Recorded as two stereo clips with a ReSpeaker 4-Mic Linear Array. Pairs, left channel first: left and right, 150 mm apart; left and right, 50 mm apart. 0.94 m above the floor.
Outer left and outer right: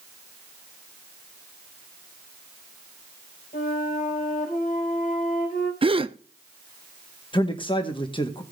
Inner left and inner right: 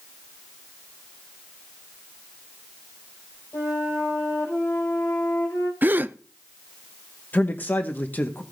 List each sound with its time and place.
3.5 s a flute: 65° left (ahead or behind), 5 m
5.8 s a gasp: 35° right (ahead or behind), 0.5 m
7.3 s a man speaking: 30° left (ahead or behind), 1.0 m